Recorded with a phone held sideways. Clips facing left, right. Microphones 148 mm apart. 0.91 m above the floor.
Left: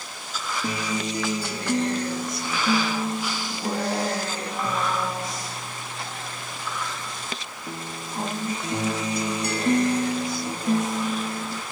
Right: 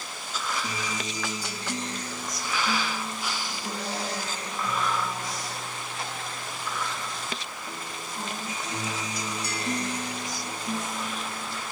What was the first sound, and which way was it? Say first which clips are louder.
A guitar: left 6 dB; 60° left (ahead or behind).